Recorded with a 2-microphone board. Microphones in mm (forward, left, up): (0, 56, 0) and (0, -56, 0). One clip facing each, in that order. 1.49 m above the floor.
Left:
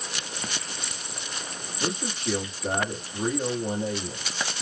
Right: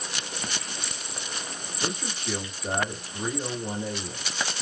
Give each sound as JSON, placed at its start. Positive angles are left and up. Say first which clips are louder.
{"t": 1.8, "sound": "a man speaking", "louder": "left 3 dB", "side_deg": 35, "distance_m": 1.1}